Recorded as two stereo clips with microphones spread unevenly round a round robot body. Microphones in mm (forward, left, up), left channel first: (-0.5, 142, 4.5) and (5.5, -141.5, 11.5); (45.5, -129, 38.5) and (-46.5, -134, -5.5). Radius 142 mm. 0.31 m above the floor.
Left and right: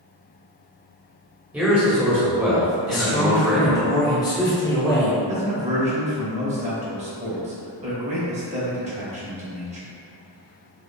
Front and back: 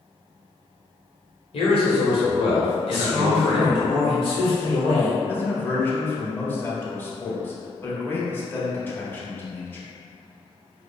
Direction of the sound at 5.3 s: 105° right.